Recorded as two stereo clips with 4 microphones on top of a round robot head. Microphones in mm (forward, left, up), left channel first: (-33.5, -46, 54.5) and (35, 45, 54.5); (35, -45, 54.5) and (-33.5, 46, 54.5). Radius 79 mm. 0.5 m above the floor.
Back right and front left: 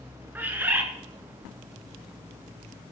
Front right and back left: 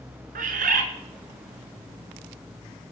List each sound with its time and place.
0.3 s a bird: 130° left, 1.6 m